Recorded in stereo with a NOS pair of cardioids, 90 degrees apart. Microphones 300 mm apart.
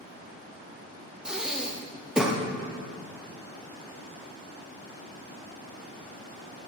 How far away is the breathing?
About 0.7 m.